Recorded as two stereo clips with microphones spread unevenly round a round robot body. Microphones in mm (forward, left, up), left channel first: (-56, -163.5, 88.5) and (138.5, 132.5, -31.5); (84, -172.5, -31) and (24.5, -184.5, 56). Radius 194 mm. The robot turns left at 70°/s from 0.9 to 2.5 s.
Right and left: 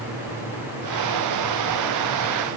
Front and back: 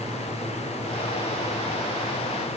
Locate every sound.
Only background noise.